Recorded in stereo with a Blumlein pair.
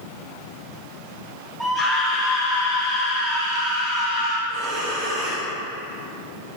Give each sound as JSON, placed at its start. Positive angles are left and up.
{"t": 1.6, "sound": "a scream", "azimuth_deg": -5, "distance_m": 0.8}
{"t": 4.5, "sound": "breathing", "azimuth_deg": -35, "distance_m": 2.5}